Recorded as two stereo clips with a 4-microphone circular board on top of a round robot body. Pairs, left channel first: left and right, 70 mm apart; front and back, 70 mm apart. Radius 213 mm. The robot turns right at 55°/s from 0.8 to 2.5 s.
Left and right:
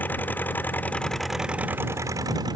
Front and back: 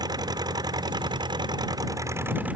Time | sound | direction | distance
0.0 | an engine running | 155° left | ?